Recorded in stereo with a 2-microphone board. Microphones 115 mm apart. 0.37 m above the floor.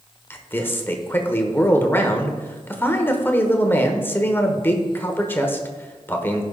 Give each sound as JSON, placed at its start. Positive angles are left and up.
{"t": 0.3, "sound": "a man speaking", "side_deg": 20, "distance_m": 1.1}